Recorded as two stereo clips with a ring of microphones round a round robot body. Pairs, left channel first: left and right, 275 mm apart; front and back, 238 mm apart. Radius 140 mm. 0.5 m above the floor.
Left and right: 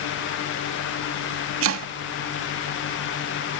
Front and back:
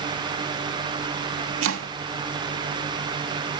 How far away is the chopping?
About 0.7 m.